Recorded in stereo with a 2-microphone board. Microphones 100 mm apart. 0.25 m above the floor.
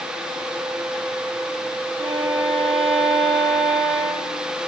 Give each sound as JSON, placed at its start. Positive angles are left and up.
{"t": 2.0, "sound": "a violin", "side_deg": -70, "distance_m": 6.5}